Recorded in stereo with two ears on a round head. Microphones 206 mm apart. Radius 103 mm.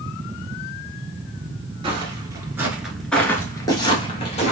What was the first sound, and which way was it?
Footsteps, 25° right (ahead or behind).